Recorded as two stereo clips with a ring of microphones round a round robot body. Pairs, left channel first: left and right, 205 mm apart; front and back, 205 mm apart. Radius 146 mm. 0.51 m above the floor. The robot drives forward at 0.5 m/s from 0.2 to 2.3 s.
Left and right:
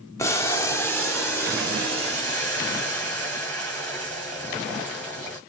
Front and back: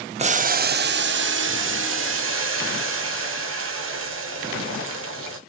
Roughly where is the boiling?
Behind left.